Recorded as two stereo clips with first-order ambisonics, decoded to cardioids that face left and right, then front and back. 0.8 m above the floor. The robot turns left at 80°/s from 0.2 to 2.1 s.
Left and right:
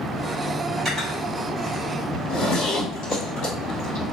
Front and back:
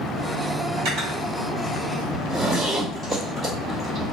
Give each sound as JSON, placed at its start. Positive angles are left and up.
{"t": 0.8, "sound": "cutlery clinking", "azimuth_deg": -175, "distance_m": 2.0}
{"t": 2.1, "sound": "a zipper", "azimuth_deg": 95, "distance_m": 1.6}